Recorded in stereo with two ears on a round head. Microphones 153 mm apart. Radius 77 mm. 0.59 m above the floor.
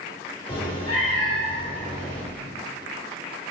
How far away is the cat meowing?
About 3.5 m.